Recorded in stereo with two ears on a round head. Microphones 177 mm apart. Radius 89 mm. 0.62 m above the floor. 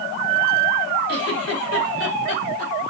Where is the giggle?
55° left (ahead or behind), 3.5 m.